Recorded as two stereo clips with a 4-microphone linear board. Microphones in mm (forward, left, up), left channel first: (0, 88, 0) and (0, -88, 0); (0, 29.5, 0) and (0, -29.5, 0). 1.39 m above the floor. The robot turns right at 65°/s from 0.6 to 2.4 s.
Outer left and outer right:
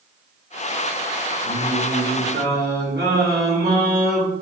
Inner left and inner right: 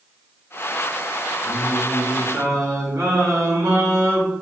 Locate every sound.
1.4 s singing: 130° right, 2.5 m; by 4.3 s 70° right, 2.5 m